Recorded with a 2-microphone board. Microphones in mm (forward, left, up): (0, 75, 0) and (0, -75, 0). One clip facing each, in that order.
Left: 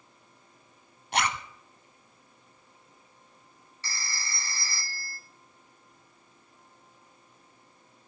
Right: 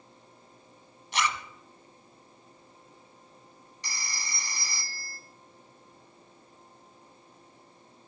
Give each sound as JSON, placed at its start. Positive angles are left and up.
{"t": 1.1, "sound": "a zipper", "side_deg": 60, "distance_m": 0.9}
{"t": 3.8, "sound": "a phone ringing", "side_deg": -20, "distance_m": 1.0}